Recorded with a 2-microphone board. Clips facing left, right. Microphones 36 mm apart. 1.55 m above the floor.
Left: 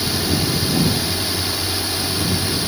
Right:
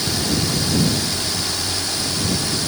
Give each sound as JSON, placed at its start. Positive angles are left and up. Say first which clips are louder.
{"t": 0.0, "sound": "a drone", "louder": "left 1 dB", "side_deg": 10}